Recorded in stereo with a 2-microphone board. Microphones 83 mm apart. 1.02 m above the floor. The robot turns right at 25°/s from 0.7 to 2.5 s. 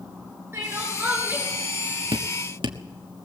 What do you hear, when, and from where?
0.5 s crying: 30° right (ahead or behind), 7.5 m; by 1.4 s 10° right (ahead or behind), 7.5 m
2.1 s dripping: 80° right, 1.4 m; by 2.8 s 85° right, 1.4 m